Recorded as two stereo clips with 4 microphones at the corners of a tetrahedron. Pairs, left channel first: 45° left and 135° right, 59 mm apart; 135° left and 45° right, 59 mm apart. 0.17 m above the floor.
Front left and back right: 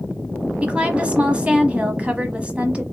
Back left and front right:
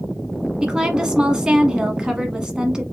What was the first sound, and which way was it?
A woman speaking, 105° right.